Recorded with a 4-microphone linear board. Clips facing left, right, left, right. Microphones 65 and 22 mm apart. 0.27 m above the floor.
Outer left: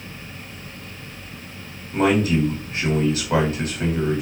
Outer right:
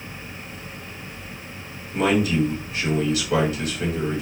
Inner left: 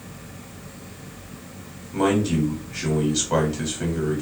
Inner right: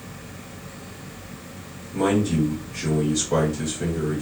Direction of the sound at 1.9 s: 40° left (ahead or behind).